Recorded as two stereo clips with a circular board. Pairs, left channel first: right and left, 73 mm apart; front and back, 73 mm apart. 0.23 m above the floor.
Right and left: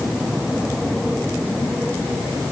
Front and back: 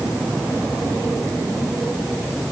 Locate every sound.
Only background noise.